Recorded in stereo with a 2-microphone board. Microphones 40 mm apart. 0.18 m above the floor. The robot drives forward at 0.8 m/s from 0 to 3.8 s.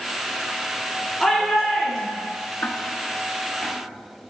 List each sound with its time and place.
1.2 s a shout: centre (ahead or behind), 2.5 m
2.6 s ticking: 50° left (ahead or behind), 0.6 m; by 3.8 s 20° left (ahead or behind), 1.3 m